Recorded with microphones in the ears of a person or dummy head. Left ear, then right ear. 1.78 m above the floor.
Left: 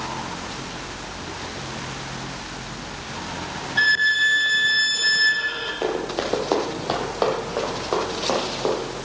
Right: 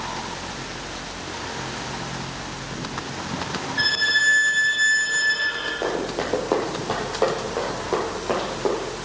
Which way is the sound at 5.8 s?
30° left (ahead or behind).